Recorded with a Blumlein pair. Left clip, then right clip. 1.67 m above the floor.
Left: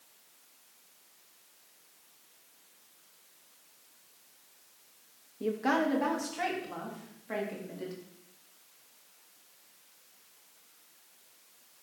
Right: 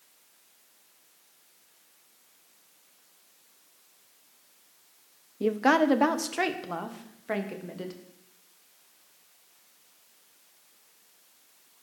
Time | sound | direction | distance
5.4 | a woman speaking | 20° right | 0.9 m